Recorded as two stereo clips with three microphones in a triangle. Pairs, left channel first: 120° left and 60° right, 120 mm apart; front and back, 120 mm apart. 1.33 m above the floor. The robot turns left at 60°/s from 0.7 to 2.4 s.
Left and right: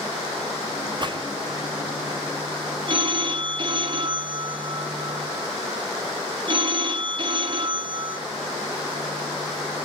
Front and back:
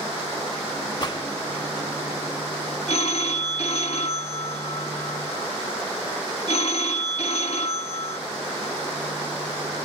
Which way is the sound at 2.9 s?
20° right.